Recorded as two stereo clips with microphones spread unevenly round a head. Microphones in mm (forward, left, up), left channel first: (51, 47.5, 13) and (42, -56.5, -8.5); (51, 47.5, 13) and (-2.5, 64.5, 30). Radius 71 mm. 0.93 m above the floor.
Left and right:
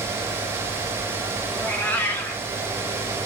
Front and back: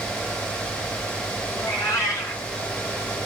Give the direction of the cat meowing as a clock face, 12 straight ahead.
11 o'clock.